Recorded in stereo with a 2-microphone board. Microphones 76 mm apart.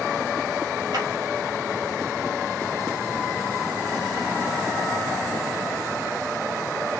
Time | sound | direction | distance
0.9 | a clap | 70° right (ahead or behind) | 3.5 m